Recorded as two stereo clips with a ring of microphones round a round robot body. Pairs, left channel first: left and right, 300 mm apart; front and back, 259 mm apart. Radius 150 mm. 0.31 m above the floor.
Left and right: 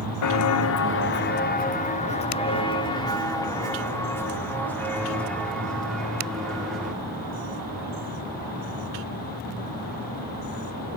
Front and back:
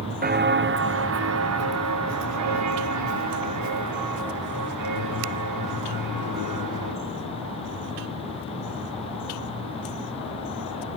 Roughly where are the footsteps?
Behind left.